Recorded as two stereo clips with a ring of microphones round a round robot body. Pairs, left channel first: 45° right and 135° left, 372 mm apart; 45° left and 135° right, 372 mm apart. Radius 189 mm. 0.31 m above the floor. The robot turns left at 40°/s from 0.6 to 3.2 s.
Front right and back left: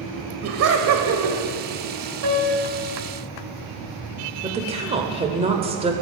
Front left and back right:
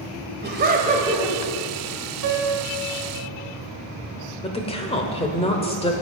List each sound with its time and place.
0.4 s laughter: 170° left, 1.5 m; by 1.4 s 140° left, 1.5 m
2.2 s a piano: straight behind, 1.4 m; by 2.8 s 160° left, 1.4 m
4.4 s a woman speaking: 90° left, 1.1 m